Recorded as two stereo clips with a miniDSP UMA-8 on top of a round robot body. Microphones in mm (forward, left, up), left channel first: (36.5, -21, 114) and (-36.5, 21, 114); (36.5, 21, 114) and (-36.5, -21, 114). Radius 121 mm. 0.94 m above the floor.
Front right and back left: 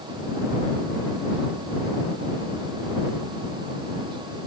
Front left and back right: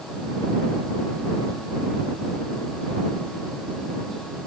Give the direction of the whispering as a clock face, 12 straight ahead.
No whispering in this recording.